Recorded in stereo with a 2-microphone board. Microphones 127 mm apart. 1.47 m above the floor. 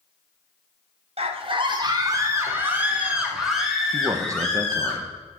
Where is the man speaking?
25° right (ahead or behind), 0.9 m.